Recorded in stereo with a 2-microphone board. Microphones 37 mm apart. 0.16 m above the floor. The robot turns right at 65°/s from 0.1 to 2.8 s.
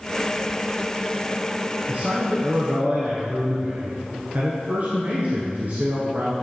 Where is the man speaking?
130° right, 1.8 m; by 6.3 s 70° right, 1.8 m.